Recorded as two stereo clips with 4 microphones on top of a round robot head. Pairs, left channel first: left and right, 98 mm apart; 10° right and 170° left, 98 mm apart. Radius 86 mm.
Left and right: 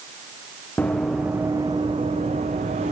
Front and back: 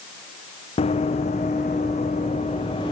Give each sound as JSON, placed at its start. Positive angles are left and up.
{"t": 0.8, "sound": "running footsteps", "azimuth_deg": 10, "distance_m": 1.8}